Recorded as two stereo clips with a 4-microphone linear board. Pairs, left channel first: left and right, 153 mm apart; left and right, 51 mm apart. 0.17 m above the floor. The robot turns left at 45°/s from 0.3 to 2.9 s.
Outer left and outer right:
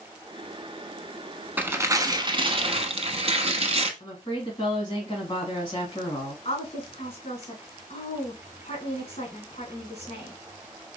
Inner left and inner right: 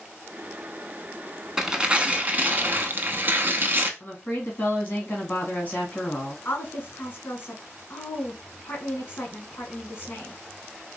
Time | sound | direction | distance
1.6 | tearing paper | 20° right | 0.6 m
4.0 | a woman speaking | 35° left (ahead or behind) | 1.7 m
6.5 | a woman speaking | 40° left (ahead or behind) | 1.9 m